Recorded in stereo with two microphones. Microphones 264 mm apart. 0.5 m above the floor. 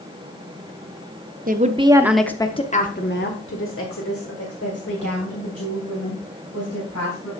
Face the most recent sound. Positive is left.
turn(degrees=70)  # may be behind; listen again after turning